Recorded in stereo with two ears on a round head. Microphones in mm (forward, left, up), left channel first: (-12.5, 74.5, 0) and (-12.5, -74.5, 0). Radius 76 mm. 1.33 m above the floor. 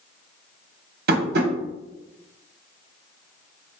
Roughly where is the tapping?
Right.